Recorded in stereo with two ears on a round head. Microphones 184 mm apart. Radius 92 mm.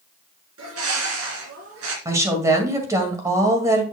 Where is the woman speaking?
15° right (ahead or behind), 1.9 m.